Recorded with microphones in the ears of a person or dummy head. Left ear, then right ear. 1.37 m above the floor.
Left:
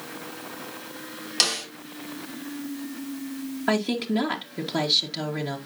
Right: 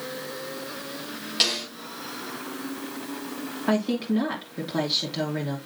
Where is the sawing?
I don't hear sawing.